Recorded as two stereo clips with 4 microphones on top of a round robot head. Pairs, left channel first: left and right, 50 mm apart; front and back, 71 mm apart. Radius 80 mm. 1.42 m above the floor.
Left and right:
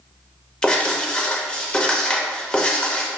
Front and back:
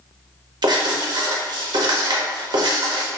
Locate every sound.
0.6 s writing: 165° left, 0.8 m